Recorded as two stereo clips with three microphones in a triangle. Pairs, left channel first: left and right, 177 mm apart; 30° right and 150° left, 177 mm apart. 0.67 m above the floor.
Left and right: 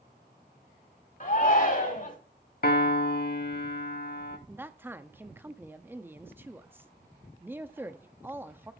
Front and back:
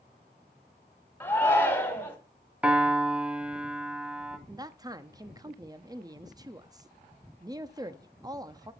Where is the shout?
50° left, 1.9 m.